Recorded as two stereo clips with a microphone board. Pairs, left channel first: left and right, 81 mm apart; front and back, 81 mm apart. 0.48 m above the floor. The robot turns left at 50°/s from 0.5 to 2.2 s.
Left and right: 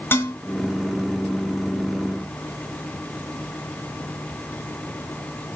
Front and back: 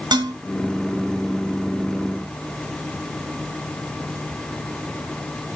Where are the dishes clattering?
150° left, 2.5 m.